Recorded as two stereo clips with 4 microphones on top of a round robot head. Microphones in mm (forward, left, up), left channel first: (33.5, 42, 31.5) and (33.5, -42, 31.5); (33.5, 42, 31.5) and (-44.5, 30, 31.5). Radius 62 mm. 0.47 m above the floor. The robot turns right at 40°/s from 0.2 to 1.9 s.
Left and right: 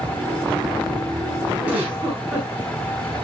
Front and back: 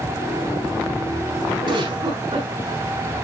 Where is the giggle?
170° right, 4 m; by 2.5 s 160° right, 4 m.